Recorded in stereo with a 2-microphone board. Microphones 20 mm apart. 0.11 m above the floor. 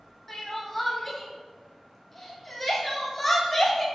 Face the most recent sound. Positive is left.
turn(degrees=10)  # may be behind; listen again after turning